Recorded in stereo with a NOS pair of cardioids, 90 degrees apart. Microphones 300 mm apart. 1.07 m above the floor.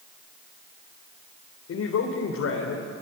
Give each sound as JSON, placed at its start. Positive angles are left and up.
{"t": 1.7, "sound": "a man speaking", "azimuth_deg": 60, "distance_m": 4.0}